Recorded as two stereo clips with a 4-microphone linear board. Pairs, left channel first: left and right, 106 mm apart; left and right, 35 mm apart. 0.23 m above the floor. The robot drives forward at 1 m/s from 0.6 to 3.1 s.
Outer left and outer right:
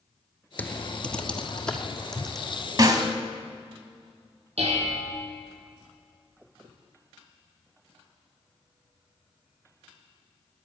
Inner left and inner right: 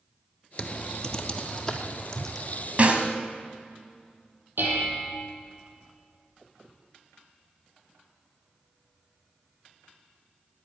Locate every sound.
0.6 s typing on a keyboard: 15° left (ahead or behind), 0.7 m; by 2.6 s 5° left (ahead or behind), 2.5 m
2.8 s a snare drum: 40° right (ahead or behind), 1.5 m
4.6 s dishes clattering: 80° right, 5.5 m